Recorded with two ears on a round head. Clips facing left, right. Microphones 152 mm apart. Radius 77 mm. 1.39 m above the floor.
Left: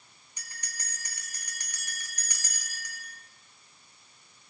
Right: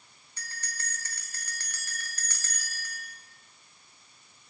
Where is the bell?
15° left (ahead or behind), 4 m.